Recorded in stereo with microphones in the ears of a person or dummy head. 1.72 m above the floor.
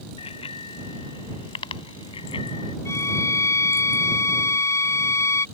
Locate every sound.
0.2 s a bicycle bell: 30° left (ahead or behind)
2.9 s a violin: 20° left (ahead or behind)